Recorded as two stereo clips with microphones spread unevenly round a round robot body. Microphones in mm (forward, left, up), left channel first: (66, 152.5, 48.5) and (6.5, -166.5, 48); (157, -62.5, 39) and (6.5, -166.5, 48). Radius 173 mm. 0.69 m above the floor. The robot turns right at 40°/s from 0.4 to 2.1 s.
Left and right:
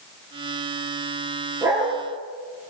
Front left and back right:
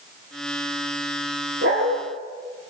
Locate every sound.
1.6 s a dog barking: 175° left, 4 m; by 2.0 s 170° right, 4 m